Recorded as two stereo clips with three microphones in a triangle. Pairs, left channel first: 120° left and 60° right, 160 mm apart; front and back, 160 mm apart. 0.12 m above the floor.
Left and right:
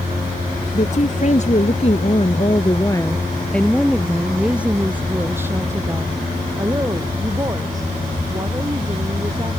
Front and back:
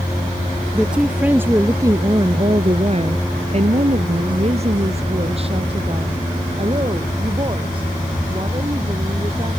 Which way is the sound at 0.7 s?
95° left.